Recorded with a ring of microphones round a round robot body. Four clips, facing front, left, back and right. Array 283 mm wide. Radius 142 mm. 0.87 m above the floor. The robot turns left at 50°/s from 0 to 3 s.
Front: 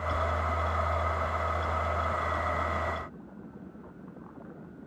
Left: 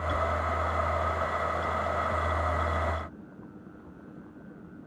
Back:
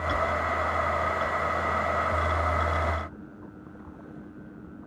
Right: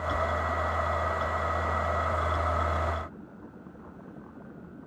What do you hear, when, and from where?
Only background noise.